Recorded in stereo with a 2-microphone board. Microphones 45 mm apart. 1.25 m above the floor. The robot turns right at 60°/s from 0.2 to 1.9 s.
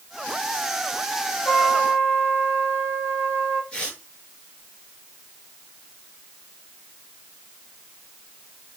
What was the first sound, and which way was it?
A trumpet, 55° left (ahead or behind).